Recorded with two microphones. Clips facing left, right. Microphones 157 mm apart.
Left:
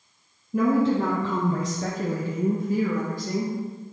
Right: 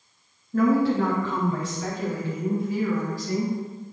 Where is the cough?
I don't hear a cough.